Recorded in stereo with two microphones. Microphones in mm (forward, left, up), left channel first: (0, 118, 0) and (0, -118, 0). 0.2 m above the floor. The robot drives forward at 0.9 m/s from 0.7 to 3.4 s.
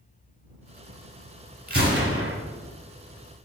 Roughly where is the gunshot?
Right.